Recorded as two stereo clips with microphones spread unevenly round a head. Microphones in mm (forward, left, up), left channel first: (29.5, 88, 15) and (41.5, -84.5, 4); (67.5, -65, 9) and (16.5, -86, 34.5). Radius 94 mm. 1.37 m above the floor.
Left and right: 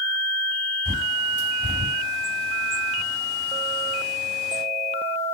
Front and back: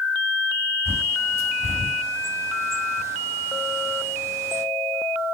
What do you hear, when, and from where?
0.8 s a bird: 170° right, 2 m